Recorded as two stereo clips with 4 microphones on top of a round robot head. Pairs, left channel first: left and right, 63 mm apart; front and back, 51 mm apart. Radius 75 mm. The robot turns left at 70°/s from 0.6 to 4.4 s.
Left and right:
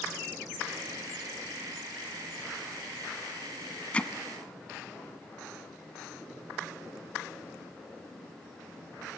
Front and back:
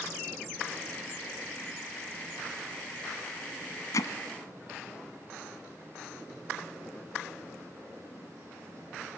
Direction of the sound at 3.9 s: 20° left.